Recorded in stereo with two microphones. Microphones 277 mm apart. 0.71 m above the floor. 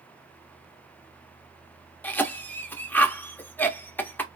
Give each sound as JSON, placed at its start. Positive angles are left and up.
{"t": 2.0, "sound": "a cough", "side_deg": 5, "distance_m": 0.8}